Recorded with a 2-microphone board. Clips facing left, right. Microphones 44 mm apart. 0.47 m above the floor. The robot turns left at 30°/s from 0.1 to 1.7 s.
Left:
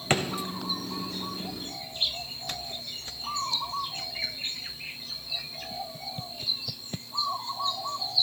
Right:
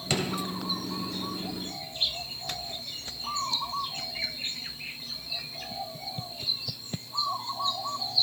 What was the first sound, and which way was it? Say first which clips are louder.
A drawer: left 3 dB; 40° left (ahead or behind).